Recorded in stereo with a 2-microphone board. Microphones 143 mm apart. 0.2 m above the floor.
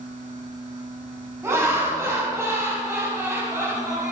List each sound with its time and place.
1.4 s laughter: 20° right (ahead or behind), 1.2 m